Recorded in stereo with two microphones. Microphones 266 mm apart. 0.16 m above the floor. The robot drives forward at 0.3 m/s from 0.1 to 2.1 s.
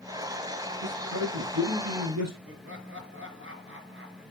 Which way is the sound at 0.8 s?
75° right (ahead or behind).